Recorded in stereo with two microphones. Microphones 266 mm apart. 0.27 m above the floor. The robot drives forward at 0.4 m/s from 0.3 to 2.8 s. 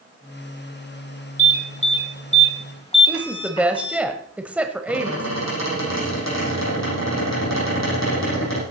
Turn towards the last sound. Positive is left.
turn(degrees=80)